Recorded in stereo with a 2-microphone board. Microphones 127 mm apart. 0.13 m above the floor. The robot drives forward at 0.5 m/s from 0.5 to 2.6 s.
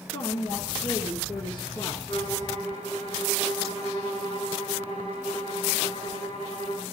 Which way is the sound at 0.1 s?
35° left (ahead or behind).